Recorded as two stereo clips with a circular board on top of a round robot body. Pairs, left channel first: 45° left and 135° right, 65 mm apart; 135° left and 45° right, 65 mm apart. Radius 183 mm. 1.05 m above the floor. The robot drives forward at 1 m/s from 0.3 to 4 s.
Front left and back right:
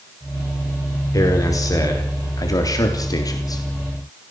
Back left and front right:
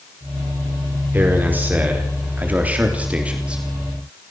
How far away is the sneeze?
I don't hear a sneeze.